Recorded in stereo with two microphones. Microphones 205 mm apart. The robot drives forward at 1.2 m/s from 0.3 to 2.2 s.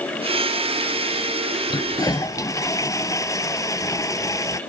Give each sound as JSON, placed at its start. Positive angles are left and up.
{"t": 1.7, "sound": "a toilet flushing", "side_deg": 25}